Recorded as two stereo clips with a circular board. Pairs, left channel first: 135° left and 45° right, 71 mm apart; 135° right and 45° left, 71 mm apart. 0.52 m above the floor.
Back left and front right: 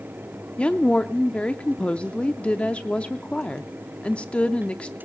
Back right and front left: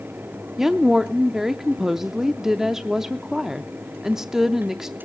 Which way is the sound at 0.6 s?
120° left.